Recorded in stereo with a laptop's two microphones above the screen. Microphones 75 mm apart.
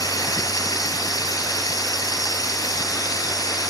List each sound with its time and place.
0.0 s running water: 55° left (ahead or behind)